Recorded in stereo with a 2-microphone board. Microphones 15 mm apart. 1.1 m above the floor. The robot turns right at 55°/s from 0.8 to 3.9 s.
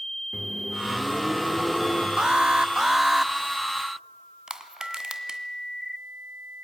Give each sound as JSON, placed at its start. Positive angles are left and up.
{"t": 0.3, "sound": "a microwave", "azimuth_deg": -15, "distance_m": 3.0}
{"t": 2.2, "sound": "an alarm", "azimuth_deg": -65, "distance_m": 0.9}
{"t": 4.5, "sound": "crushing", "side_deg": -55, "distance_m": 1.8}